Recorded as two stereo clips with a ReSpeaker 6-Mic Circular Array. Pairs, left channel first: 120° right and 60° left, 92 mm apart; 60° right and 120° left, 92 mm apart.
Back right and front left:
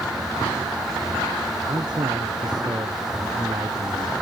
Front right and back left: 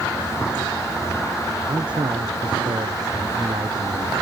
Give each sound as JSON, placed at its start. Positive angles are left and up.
{"t": 1.7, "sound": "a man speaking", "azimuth_deg": 95}